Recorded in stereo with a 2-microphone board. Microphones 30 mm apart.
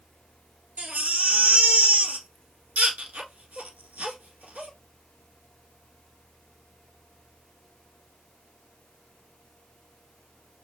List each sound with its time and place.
0.8 s a baby crying: 65° right (ahead or behind), 1.6 m